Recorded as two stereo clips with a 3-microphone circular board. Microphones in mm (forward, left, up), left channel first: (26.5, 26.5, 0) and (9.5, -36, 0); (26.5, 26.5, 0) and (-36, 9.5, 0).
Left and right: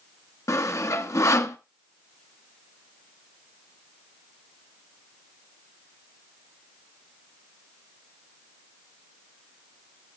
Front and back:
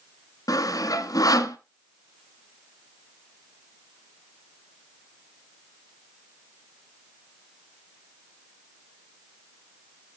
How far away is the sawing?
About 0.9 m.